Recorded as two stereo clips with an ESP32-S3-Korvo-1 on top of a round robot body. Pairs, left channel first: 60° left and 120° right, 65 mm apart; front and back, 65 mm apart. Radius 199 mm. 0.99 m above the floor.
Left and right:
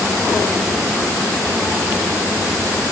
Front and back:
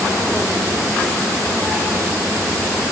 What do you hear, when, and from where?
Only background noise.